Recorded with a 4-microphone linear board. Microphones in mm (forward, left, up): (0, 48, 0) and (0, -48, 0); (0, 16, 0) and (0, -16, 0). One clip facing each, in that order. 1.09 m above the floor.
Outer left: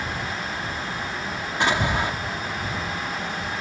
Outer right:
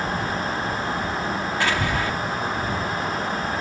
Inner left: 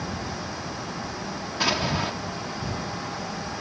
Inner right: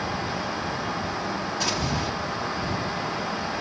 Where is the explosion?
20° left (ahead or behind).